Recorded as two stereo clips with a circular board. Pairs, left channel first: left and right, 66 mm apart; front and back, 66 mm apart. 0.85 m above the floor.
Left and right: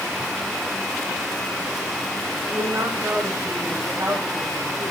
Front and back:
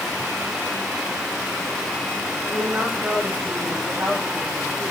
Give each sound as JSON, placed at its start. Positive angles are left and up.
{"t": 2.5, "sound": "a woman speaking", "azimuth_deg": -120, "distance_m": 5.0}